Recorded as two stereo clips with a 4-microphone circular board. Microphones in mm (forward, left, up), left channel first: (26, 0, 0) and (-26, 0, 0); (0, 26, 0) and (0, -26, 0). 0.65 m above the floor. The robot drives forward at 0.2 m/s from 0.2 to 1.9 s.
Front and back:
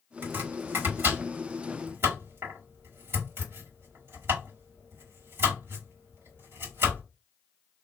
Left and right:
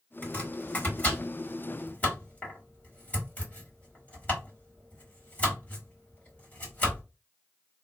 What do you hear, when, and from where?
0.2 s chopping: 145° left, 1.8 m; by 7.0 s 150° left, 2 m